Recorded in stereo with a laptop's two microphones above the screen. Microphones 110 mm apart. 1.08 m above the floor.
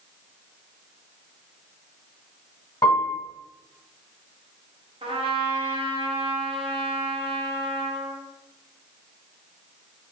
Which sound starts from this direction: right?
A trumpet, at 5.0 s.